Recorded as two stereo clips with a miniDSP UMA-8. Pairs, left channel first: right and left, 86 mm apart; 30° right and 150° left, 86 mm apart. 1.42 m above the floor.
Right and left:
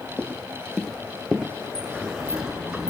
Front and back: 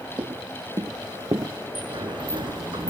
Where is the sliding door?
175° left.